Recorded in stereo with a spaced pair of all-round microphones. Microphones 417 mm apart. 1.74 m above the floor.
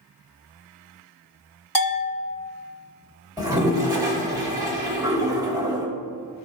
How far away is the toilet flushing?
About 1.1 m.